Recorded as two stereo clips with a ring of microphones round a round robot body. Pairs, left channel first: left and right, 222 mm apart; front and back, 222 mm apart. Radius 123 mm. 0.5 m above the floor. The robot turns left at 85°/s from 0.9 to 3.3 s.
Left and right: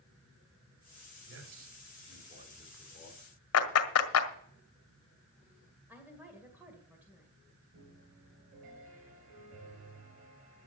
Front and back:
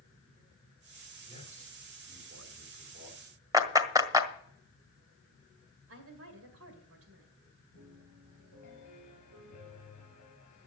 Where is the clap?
105° left, 1.8 m.